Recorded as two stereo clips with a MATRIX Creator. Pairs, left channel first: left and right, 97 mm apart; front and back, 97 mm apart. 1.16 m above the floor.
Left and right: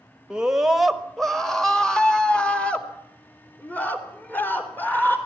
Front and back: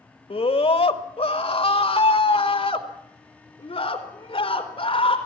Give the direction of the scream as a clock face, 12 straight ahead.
12 o'clock.